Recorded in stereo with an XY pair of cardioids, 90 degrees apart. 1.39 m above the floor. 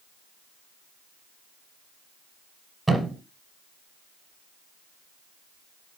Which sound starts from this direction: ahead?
A thud, at 2.9 s.